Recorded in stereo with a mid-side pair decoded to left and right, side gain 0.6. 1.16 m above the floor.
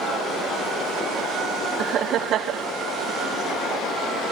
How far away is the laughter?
About 0.5 m.